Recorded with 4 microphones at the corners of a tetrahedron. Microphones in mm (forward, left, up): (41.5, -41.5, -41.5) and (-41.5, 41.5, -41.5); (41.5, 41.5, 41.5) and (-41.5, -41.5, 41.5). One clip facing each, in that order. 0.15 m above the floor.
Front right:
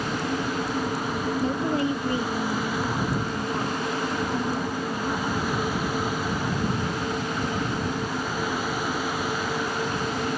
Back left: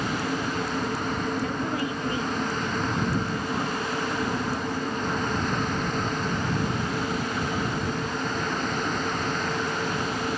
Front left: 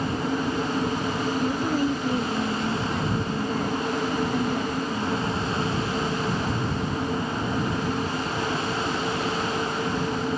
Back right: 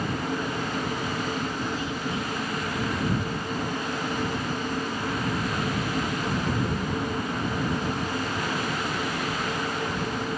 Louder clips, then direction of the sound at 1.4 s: Front right 3 dB, front left 6 dB; 5° left.